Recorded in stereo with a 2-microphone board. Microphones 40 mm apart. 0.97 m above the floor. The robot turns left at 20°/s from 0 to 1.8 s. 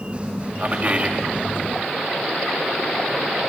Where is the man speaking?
35° right (ahead or behind), 1.3 m; by 1.2 s 25° right (ahead or behind), 1.3 m.